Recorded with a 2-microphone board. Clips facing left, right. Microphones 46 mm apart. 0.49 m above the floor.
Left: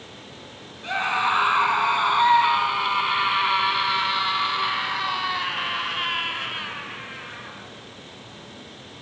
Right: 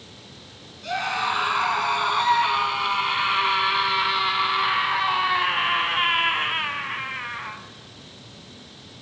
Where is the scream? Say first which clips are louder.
Left 2 dB; 25° left (ahead or behind), 5 m; by 7.6 s 40° right (ahead or behind), 4 m.